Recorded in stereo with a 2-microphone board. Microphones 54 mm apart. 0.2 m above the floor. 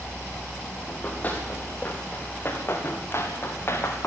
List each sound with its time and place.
0.9 s running footsteps: 30° left (ahead or behind), 5 m; by 4.1 s 50° left (ahead or behind), 4 m